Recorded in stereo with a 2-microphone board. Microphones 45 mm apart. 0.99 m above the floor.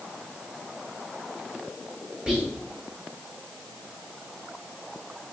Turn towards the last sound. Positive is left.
turn(degrees=-15)  # may be behind; listen again after turning